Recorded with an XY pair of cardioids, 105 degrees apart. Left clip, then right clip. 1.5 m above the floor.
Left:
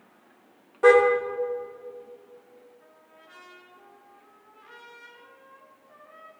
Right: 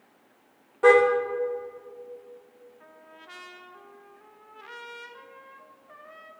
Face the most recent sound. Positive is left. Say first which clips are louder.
# right 4 dB
turn(degrees=-65)